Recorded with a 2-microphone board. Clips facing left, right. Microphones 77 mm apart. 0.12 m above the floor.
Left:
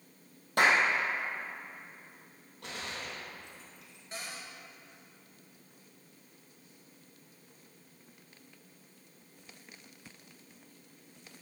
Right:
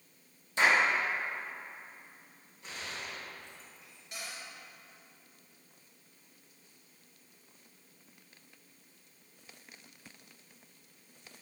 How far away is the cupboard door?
About 2 m.